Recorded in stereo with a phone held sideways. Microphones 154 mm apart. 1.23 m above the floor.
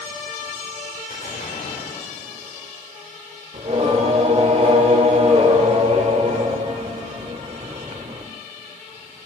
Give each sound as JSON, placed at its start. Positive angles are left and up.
{"t": 1.1, "sound": "an explosion", "side_deg": 85, "distance_m": 5.0}
{"t": 3.5, "sound": "singing", "side_deg": -50, "distance_m": 1.7}